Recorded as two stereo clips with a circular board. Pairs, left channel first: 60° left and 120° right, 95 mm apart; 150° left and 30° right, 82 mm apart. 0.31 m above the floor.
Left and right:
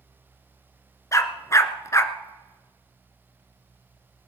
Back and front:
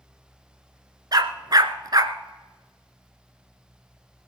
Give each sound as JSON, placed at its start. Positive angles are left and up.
{"t": 1.1, "sound": "a dog barking", "azimuth_deg": 5, "distance_m": 0.8}